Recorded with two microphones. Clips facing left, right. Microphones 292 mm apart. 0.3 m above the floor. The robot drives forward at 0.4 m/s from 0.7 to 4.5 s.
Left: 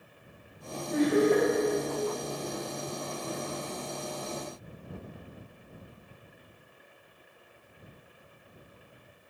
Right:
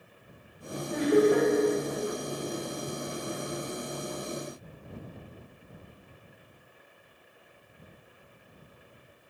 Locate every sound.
0.9 s laughter: 15° right (ahead or behind), 0.9 m